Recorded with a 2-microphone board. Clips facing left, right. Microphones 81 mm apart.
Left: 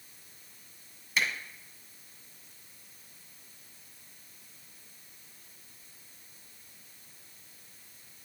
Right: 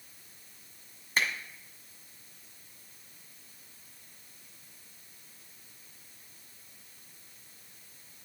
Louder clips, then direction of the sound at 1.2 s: Right 1 dB; 40° right (ahead or behind).